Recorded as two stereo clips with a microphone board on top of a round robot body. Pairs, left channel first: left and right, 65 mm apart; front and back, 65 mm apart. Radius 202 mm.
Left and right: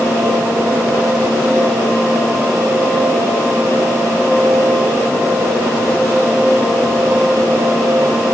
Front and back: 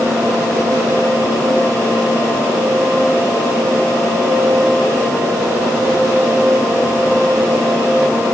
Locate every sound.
Only background noise.